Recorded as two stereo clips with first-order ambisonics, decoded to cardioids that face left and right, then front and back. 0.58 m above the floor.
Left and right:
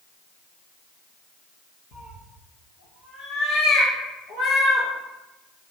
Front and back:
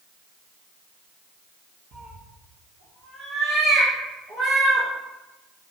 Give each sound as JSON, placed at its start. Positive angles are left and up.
{"t": 1.9, "sound": "a cat meowing", "azimuth_deg": 125, "distance_m": 1.6}